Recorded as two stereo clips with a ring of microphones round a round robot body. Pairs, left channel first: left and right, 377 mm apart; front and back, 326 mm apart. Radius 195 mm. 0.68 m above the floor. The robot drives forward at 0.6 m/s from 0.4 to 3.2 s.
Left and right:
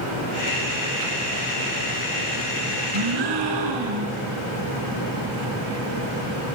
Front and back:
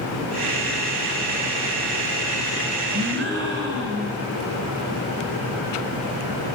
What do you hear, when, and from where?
2.9 s a gasp: 115° right, 4 m